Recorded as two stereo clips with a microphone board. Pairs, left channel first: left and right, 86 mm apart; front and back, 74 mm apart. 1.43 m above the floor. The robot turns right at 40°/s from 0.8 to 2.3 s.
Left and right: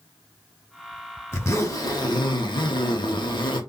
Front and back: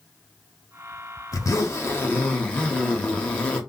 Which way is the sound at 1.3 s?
30° left.